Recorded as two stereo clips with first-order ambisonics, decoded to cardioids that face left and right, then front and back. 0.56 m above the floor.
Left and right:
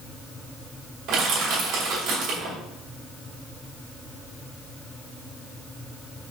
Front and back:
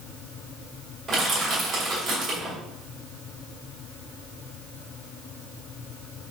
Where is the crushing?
120° right, 1.7 m.